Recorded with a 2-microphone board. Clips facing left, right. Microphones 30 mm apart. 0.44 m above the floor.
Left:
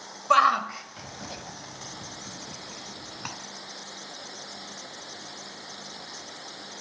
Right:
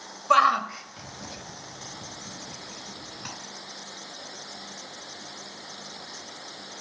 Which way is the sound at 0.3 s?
5° right (ahead or behind).